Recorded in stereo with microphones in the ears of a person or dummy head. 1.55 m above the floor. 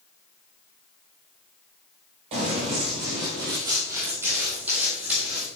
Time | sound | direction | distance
2.3 | running footsteps | 30° right (ahead or behind) | 1.8 m